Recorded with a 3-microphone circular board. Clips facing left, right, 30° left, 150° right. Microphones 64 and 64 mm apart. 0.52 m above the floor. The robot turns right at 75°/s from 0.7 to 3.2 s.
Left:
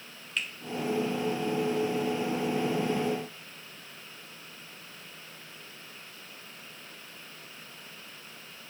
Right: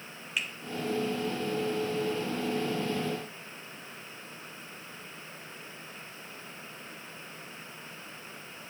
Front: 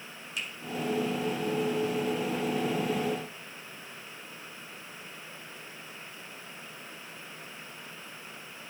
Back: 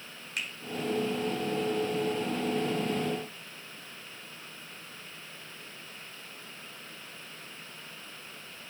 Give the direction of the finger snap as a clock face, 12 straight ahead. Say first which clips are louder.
Even, back 1 dB; 6 o'clock.